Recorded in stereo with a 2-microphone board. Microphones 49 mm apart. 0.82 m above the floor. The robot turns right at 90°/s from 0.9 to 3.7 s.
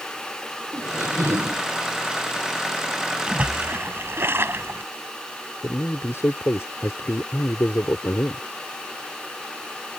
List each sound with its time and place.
0.7 s a squeak: 120° right; by 1.6 s 55° right
3.3 s a splash: 160° right; by 4.8 s 120° right
5.6 s a man speaking: 75° left (ahead or behind)